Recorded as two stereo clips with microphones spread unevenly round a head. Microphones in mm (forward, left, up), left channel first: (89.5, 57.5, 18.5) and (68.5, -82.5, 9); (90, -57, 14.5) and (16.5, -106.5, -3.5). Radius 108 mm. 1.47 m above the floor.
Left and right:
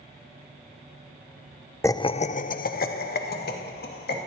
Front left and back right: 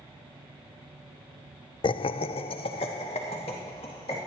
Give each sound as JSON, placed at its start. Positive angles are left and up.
{"t": 1.8, "sound": "laughter", "azimuth_deg": 10, "distance_m": 0.5}